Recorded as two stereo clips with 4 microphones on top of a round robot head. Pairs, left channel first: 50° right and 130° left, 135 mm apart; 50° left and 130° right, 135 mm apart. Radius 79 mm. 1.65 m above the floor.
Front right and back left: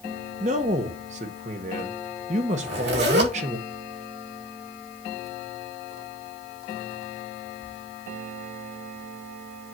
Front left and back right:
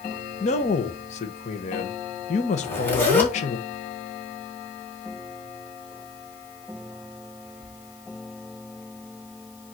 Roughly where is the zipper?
Behind left.